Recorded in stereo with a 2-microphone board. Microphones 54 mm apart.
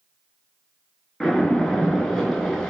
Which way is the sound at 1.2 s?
10° left (ahead or behind).